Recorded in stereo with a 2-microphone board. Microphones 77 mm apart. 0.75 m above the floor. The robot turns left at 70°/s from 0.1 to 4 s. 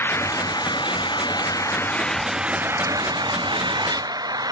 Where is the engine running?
150° left; by 4.5 s 120° right.